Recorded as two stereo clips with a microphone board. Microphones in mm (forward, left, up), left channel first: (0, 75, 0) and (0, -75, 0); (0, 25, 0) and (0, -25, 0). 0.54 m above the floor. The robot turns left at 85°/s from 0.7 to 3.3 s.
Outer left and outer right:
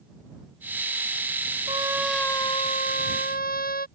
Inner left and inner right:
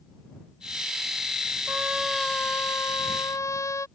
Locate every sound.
1.7 s a trumpet: 145° right; by 3.9 s 80° left